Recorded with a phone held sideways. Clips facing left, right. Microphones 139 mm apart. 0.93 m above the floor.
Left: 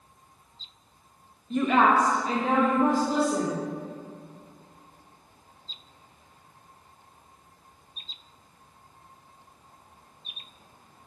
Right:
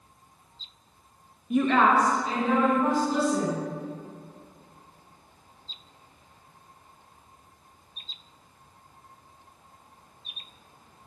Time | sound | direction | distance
1.5 | a woman speaking | 15° right (ahead or behind) | 0.7 m